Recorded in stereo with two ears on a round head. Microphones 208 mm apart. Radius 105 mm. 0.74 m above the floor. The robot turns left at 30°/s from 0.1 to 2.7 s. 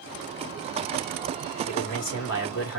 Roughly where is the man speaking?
Behind left.